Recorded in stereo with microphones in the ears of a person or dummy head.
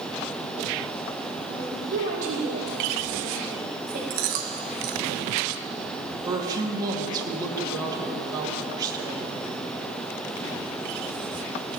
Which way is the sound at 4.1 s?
45° right (ahead or behind).